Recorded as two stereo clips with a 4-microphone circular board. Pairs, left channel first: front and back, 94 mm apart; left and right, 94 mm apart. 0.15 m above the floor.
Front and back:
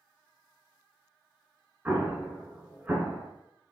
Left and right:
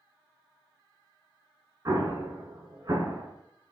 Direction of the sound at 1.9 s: 115° right.